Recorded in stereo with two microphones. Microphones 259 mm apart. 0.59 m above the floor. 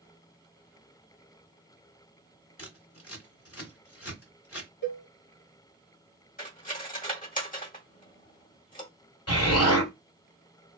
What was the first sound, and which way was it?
Scissors, 55° left (ahead or behind).